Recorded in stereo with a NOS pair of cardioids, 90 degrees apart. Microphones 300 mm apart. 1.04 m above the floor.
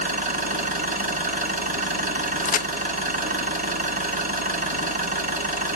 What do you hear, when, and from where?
0.0 s an engine running: 30° right, 2.5 m
2.5 s a crack: 30° left, 0.6 m